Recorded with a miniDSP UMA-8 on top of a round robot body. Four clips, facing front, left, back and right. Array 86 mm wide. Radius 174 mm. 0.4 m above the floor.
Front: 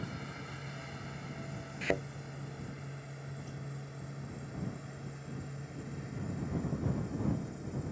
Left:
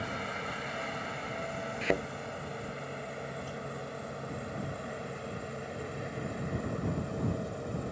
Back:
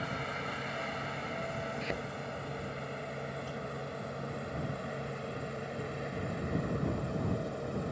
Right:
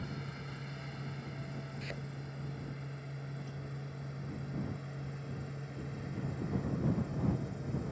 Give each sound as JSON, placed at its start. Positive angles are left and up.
{"t": 0.0, "sound": "a helicopter", "azimuth_deg": 130}
{"t": 1.8, "sound": "a thud", "azimuth_deg": 70}